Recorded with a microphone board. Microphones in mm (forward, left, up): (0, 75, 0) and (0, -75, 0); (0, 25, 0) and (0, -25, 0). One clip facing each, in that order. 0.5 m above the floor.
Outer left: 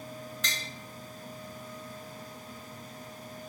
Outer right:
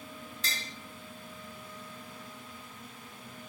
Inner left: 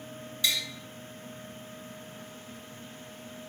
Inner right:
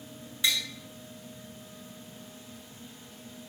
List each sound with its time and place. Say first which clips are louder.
0.4 s tapping: even, inner right 1 dB; 30° right (ahead or behind), 1.6 m